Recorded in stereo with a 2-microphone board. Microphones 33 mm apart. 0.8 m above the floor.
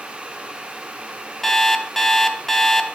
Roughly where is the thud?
I don't hear a thud.